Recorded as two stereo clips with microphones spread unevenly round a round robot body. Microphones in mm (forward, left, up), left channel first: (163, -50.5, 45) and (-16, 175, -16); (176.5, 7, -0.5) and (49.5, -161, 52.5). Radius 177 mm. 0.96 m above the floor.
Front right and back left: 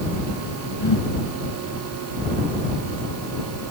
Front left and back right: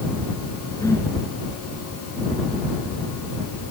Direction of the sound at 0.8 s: 25° right.